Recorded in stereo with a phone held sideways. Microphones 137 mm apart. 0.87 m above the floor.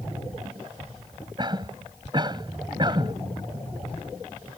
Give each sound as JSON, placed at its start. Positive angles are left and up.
{"t": 1.4, "sound": "a cough", "side_deg": -35}